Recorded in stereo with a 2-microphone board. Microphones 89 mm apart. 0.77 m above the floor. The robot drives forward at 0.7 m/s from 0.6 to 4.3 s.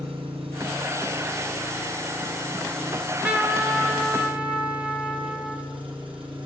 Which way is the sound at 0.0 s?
85° right.